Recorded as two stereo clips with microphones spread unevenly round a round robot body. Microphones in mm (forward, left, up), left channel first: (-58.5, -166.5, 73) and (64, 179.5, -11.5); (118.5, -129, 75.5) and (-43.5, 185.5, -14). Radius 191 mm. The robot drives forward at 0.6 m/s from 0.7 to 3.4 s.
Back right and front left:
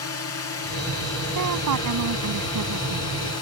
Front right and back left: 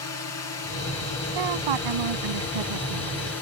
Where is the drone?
80° right; by 3.4 s 100° right.